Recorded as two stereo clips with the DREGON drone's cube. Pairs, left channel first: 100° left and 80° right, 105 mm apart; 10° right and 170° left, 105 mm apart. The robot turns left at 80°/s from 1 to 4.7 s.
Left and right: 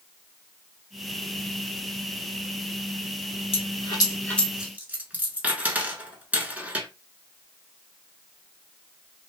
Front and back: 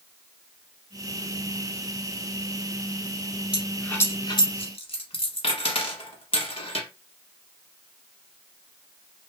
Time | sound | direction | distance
3.5 | a dropped coin | 90° left | 0.8 m